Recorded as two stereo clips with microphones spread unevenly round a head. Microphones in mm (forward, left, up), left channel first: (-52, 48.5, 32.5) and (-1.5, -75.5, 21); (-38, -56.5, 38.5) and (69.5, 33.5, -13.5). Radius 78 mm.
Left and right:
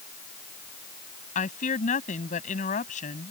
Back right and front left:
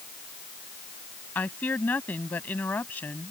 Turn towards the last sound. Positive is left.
turn(degrees=140)